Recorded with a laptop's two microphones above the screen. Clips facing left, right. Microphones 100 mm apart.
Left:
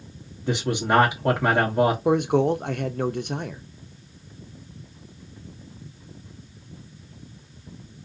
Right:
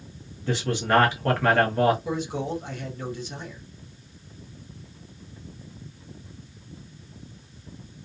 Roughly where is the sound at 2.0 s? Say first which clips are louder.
Left 9 dB; left.